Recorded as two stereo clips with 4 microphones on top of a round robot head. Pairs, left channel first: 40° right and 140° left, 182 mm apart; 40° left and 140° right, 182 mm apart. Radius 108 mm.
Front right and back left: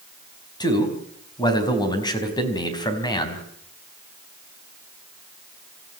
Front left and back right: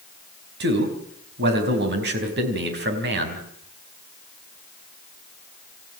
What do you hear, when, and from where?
0.6 s a man speaking: 110° right, 4.5 m